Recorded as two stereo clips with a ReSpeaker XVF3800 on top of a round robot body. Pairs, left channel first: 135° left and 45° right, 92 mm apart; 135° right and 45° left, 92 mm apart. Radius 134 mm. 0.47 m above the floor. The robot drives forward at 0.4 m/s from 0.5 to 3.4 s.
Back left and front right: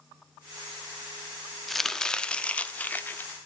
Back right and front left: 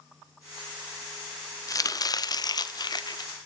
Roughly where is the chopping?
Behind right.